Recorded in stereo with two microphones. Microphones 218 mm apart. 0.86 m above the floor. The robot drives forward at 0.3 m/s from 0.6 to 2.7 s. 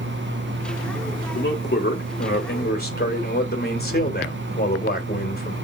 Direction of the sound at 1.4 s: 50° left (ahead or behind).